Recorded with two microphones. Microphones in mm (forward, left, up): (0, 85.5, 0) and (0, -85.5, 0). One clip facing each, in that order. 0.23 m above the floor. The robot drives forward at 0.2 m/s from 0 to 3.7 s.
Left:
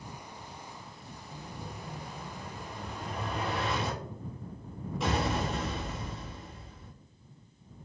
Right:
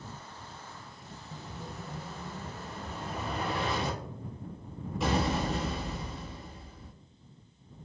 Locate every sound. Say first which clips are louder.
1.3 s an explosion: right 1 dB; centre (ahead or behind), 0.6 m